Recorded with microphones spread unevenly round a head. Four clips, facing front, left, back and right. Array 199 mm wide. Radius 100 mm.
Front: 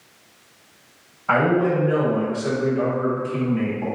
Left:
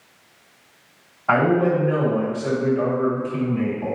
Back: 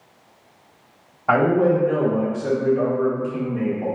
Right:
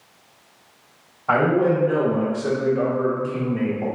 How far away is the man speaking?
About 1.3 m.